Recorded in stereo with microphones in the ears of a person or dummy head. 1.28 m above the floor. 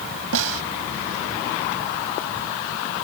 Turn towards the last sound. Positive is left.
turn(degrees=-85)